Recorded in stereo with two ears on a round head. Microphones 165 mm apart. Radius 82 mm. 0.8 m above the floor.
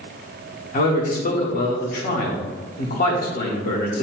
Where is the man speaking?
50° left (ahead or behind), 2 m.